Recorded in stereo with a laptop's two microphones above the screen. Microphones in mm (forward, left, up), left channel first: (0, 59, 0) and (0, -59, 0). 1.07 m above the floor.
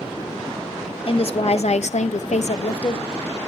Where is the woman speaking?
50° left (ahead or behind), 0.9 m; by 3.4 s 25° left (ahead or behind), 0.8 m.